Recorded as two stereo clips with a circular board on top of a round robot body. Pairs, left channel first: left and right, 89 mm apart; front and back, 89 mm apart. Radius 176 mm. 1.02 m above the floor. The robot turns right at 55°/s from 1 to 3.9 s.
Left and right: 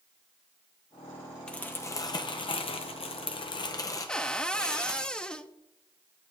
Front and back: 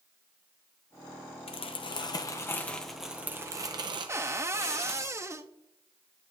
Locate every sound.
1.5 s crumpling: 10° left, 0.7 m; by 5.1 s 145° left, 0.7 m
4.1 s a cupboard door: 160° left, 0.8 m